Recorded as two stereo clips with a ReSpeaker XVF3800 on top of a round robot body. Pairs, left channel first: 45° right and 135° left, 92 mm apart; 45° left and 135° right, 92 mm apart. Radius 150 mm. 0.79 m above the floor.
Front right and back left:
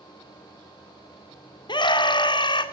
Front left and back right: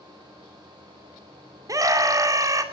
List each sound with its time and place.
1.7 s a scream: 80° right, 2 m